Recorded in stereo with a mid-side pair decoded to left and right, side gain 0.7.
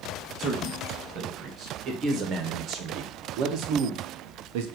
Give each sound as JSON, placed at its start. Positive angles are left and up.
{"t": 0.4, "sound": "a man speaking", "azimuth_deg": -35, "distance_m": 3.0}